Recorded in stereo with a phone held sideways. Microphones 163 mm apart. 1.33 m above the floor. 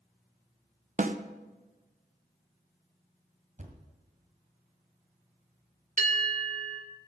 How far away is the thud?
About 1.8 m.